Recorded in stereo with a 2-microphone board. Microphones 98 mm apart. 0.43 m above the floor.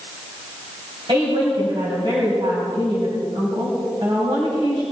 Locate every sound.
1.1 s a woman speaking: 55° right (ahead or behind), 2.5 m